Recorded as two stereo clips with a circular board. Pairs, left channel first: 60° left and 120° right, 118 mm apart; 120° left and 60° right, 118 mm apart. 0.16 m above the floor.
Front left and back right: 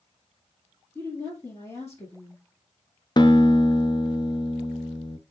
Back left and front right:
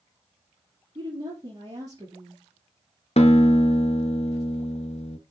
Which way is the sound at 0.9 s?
5° right.